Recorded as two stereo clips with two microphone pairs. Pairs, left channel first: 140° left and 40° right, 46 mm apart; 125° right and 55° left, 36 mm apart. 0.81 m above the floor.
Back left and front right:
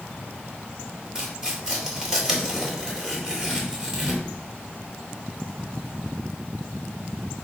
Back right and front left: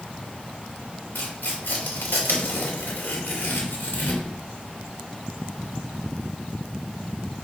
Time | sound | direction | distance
1.1 | tearing paper | 115° right | 2.5 m